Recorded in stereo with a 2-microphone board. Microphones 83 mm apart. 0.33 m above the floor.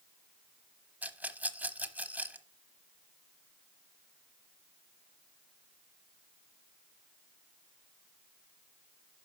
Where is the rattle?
20° right (ahead or behind), 0.8 m.